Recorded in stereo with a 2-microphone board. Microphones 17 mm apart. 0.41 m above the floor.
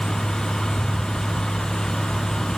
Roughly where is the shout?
I don't hear a shout.